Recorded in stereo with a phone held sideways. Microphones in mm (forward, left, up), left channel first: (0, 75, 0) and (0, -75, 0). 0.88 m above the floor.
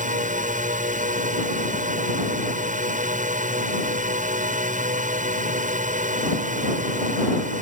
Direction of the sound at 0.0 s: 55° right (ahead or behind).